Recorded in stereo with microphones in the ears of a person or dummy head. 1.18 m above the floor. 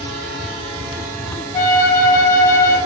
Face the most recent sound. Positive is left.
turn(degrees=15)  # may be behind; listen again after turning